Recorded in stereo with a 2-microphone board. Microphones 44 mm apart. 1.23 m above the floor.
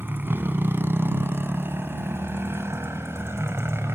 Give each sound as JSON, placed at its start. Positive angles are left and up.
{"t": 0.0, "sound": "a motorcycle", "side_deg": -50}